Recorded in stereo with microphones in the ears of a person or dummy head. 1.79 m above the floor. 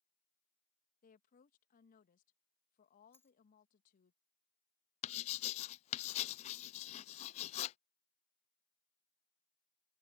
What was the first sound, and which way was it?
A woman speaking, 45° left (ahead or behind).